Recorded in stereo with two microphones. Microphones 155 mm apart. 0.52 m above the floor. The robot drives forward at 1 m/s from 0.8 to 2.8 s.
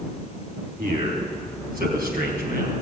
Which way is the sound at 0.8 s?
70° right (ahead or behind).